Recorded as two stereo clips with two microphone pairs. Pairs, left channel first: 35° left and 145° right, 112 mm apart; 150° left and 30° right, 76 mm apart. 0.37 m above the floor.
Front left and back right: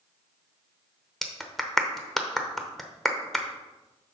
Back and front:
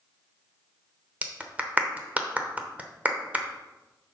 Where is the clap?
50° right, 0.9 m.